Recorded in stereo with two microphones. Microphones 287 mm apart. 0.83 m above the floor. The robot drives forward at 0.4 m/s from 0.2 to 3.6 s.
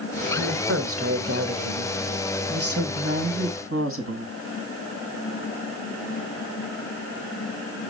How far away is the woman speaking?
About 1.5 m.